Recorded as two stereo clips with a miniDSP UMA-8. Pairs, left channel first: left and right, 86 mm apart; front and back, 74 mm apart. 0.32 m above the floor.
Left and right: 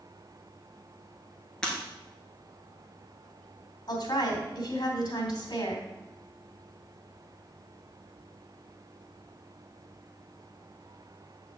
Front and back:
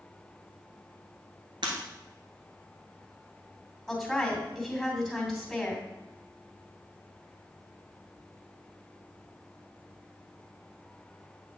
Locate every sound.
1.6 s breaking glass: 170° left, 1.8 m
3.9 s a woman speaking: 95° left, 2.5 m